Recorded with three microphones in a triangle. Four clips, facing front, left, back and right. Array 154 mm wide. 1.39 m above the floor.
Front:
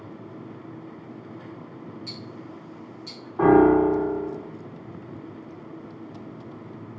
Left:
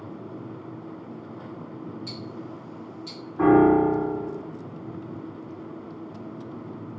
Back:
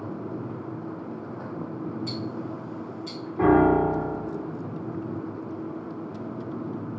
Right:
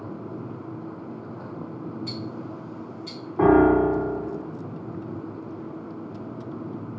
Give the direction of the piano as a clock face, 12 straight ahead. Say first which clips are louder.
Even, front 3 dB; 2 o'clock.